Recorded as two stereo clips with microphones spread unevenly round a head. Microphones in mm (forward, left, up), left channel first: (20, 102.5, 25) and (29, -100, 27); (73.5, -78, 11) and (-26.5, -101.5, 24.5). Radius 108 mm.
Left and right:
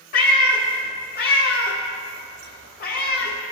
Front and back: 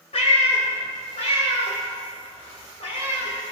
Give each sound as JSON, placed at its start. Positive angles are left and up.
{"t": 0.1, "sound": "a cat meowing", "azimuth_deg": 60, "distance_m": 1.1}